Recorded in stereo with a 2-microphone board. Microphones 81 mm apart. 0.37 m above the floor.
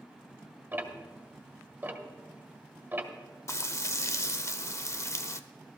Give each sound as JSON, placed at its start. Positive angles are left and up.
{"t": 0.7, "sound": "ticking", "side_deg": -25, "distance_m": 1.6}
{"t": 3.5, "sound": "frying", "side_deg": 35, "distance_m": 0.5}